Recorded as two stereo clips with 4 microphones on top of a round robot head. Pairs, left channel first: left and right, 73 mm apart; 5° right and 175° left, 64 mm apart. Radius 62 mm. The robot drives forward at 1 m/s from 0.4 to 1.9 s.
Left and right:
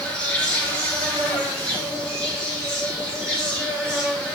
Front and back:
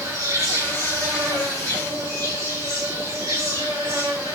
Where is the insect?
165° left, 2.5 m; by 4.3 s 170° left, 4 m.